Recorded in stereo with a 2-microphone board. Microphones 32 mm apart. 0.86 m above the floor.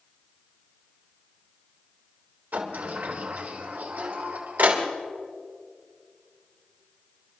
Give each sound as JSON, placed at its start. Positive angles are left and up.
{"t": 2.5, "sound": "a sliding door", "side_deg": -85, "distance_m": 2.5}